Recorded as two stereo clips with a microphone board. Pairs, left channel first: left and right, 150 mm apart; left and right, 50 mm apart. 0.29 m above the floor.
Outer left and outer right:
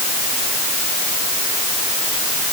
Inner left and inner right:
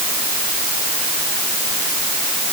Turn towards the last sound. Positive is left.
No sound to turn to.